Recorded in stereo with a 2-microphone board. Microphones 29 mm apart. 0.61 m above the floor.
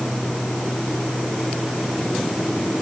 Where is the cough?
No cough in this recording.